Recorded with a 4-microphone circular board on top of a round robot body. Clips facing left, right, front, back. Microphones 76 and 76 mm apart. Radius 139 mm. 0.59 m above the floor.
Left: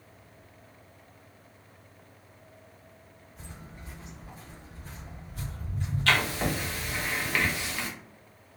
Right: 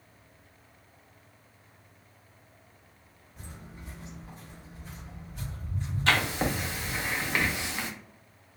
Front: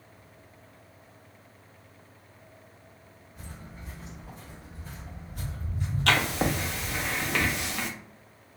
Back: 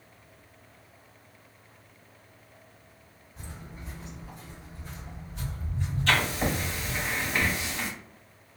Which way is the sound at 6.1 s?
20° right.